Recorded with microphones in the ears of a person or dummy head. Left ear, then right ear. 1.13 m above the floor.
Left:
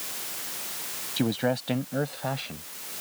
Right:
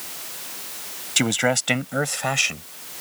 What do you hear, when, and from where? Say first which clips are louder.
1.2 s a man speaking: right 7 dB; 60° right (ahead or behind); by 2.7 s 65° right (ahead or behind)